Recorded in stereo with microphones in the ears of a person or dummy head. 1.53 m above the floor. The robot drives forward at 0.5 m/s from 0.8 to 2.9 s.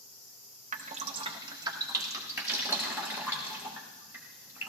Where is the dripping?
40° right (ahead or behind), 0.5 m; by 4.7 s 15° right (ahead or behind), 1.5 m.